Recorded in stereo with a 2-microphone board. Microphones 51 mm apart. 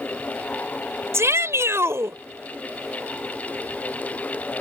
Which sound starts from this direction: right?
A shout, at 1.1 s.